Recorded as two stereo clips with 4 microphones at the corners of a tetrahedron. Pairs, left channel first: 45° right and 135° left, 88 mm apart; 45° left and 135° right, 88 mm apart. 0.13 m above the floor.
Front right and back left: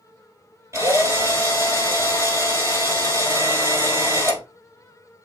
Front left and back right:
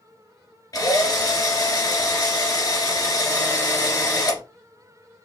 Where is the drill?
85° left, 2 m.